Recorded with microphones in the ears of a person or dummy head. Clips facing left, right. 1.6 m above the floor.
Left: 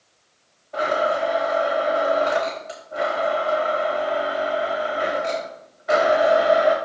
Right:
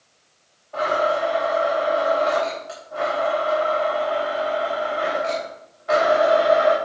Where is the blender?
20° left (ahead or behind), 3.5 m.